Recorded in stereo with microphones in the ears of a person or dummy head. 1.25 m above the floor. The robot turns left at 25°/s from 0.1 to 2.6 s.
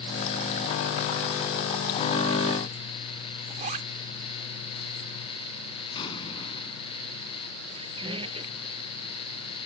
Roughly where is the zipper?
Right.